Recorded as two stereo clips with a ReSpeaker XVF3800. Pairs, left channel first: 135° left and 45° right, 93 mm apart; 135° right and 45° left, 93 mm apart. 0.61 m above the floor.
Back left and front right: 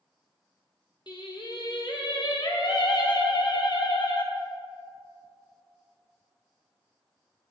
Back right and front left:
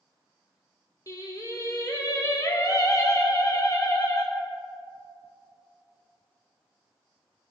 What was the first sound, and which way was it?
Singing, 170° left.